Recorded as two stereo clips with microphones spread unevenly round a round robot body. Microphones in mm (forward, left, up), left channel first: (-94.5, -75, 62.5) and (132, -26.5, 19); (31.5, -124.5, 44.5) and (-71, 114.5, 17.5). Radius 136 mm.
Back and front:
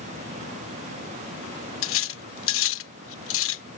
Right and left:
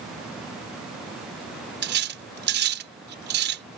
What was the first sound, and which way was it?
Cutlery clinking, 155° left.